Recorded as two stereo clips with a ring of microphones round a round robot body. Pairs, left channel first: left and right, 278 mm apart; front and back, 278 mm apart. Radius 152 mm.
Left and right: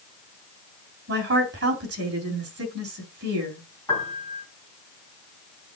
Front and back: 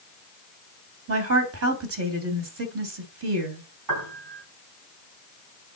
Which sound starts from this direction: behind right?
A woman speaking, at 1.1 s.